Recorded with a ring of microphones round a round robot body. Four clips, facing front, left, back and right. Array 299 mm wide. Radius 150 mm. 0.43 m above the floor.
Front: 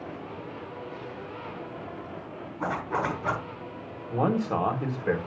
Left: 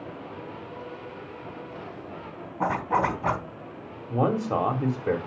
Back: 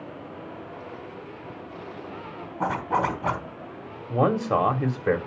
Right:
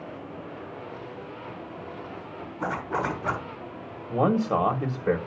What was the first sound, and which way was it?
A zipper, 125° left.